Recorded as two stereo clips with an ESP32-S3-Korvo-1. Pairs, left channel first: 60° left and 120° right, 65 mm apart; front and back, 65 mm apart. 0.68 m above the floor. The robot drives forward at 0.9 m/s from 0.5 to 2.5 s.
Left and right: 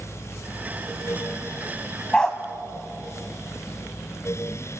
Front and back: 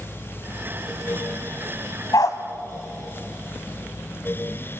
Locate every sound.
2.1 s a dog barking: 20° right, 1.3 m